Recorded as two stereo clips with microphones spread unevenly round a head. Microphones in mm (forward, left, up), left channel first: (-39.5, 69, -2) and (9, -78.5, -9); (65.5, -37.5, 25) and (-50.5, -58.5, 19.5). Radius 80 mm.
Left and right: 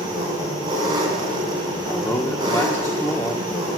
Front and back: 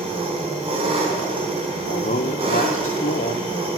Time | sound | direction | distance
0.0 | an engine running | 135° right | 3.5 m
1.9 | a man speaking | 25° left | 0.9 m